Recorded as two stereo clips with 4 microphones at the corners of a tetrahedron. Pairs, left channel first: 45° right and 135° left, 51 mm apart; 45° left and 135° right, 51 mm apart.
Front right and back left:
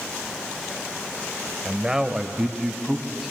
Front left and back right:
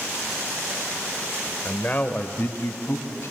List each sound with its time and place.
1.6 s a man speaking: 80° left, 1.0 m; by 3.3 s 55° left, 1.9 m